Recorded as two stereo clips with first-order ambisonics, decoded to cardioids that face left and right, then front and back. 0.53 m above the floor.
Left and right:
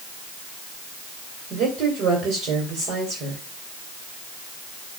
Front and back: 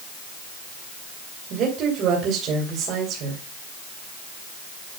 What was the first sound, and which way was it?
A woman speaking, 135° right.